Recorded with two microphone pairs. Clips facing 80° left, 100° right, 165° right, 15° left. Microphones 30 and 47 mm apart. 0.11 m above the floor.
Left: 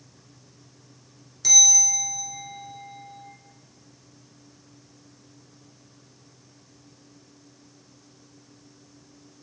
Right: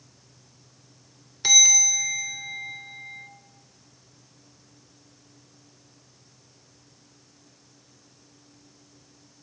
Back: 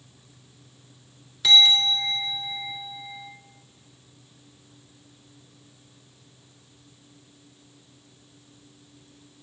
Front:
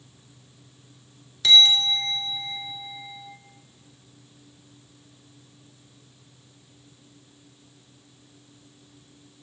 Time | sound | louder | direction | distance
1.4 | a bell | right 2 dB, even | 85° right | 1.2 m